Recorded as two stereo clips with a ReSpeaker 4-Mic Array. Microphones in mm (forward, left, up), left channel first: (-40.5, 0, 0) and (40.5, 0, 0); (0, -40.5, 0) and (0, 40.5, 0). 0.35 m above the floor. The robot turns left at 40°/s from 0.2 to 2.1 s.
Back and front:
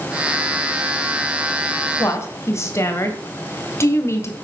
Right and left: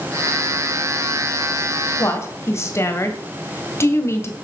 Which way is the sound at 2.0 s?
130° right.